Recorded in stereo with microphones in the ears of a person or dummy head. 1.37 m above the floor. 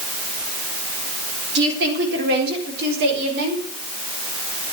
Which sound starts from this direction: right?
A woman speaking, at 1.6 s.